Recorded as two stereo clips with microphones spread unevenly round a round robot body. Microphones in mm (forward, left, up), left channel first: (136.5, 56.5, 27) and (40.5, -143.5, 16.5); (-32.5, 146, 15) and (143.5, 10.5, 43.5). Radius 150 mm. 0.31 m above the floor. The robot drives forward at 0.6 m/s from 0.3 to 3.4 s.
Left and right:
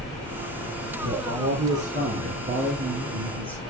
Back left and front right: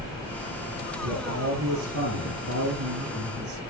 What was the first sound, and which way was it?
A man speaking, 70° right.